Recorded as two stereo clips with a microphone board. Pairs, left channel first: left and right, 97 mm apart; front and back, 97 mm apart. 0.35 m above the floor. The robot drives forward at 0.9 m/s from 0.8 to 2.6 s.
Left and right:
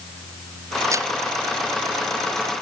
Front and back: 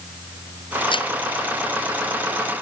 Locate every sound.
0.9 s breaking glass: 30° right